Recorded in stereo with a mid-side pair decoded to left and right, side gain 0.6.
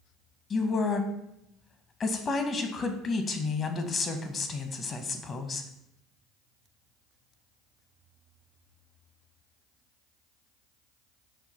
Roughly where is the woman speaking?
Ahead left.